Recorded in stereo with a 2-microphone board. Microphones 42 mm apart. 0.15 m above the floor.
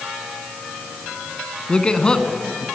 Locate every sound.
1.7 s a man speaking: 20° left (ahead or behind), 1.7 m